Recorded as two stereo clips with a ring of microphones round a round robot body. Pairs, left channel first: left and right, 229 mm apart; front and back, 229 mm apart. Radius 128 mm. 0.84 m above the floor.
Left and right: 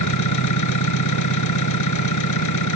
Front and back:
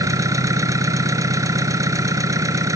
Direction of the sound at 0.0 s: 105° left.